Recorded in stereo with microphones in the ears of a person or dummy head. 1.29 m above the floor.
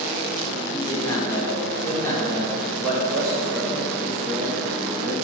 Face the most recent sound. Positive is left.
turn(degrees=-20)  # may be behind; listen again after turning